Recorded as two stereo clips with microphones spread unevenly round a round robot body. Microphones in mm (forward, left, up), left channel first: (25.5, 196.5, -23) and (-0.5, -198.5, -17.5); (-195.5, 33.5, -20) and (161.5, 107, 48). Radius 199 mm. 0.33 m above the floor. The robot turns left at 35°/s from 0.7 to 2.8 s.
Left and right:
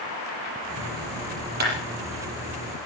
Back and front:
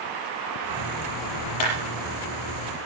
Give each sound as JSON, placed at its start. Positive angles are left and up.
{"t": 1.6, "sound": "a clap", "azimuth_deg": -160, "distance_m": 6.5}